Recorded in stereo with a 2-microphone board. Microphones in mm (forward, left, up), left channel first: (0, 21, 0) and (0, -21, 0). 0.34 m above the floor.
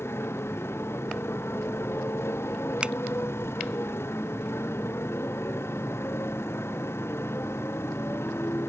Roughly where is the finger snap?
Right.